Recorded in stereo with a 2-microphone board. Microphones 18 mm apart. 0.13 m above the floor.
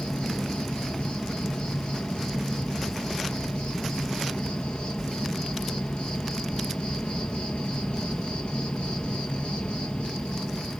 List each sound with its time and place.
0.0 s an insect: 60° left (ahead or behind), 1.6 m